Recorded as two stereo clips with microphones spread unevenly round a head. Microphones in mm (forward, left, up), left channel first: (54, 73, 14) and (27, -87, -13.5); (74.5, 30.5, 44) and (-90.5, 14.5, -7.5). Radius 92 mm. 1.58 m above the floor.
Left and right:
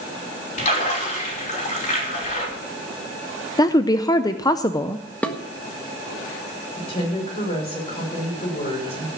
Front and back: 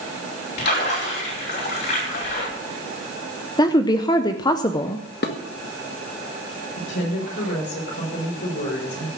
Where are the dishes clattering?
5° left, 1.5 m.